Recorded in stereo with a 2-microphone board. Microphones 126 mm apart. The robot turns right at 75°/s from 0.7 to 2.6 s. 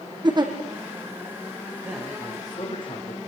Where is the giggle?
35° right (ahead or behind), 3.5 m.